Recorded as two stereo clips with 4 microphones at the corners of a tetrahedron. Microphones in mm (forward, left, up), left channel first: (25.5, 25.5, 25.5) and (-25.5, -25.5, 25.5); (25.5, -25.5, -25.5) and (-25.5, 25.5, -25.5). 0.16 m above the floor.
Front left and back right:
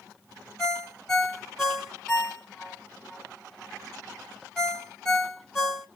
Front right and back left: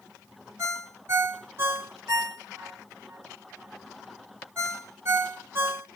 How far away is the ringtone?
About 1.2 m.